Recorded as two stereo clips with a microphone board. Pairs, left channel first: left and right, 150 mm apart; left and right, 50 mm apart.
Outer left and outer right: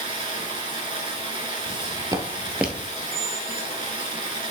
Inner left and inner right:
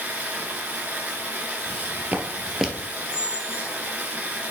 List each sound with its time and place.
0.0 s running water: 35° right (ahead or behind), 2.5 m
1.7 s footsteps: 35° right (ahead or behind), 1.4 m; by 2.9 s centre (ahead or behind), 1.2 m
3.1 s a squeak: 40° left (ahead or behind), 0.7 m